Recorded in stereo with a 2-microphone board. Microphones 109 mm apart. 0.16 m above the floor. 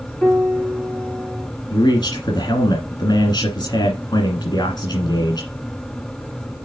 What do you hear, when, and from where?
0.2 s a piano: 15° left (ahead or behind), 1.9 m
1.7 s a man speaking: 40° left (ahead or behind), 1.7 m